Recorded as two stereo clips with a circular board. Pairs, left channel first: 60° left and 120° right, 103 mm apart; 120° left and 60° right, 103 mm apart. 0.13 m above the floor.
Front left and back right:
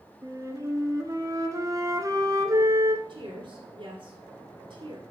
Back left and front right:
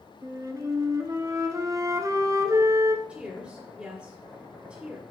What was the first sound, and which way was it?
A flute, 90° right.